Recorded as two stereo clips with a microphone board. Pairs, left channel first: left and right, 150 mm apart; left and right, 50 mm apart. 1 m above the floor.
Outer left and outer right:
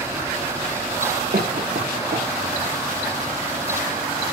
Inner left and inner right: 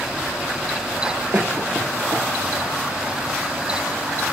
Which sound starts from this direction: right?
A cough, at 1.3 s.